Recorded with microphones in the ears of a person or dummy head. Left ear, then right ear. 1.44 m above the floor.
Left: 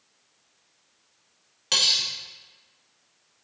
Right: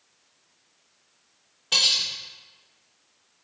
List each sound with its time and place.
1.7 s cutlery clinking: 40° left (ahead or behind), 0.9 m